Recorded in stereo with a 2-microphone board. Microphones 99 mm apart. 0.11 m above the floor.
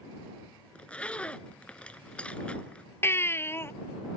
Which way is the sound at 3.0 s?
25° left (ahead or behind).